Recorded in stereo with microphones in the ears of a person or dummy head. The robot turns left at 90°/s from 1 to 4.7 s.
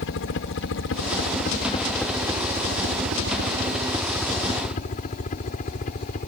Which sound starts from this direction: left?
A helicopter, at 0.0 s.